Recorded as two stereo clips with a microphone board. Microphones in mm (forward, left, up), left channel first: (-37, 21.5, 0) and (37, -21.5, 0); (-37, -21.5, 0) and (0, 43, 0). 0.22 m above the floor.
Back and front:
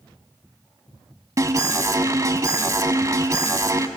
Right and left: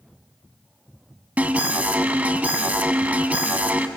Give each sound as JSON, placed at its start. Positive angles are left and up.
{"t": 1.4, "sound": "an alarm", "azimuth_deg": 0, "distance_m": 0.9}